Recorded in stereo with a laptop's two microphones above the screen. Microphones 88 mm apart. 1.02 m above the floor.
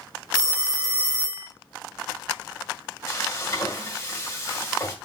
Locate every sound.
0.3 s a phone ringing: 45° right (ahead or behind), 0.5 m
3.1 s frying: 35° left (ahead or behind), 1.4 m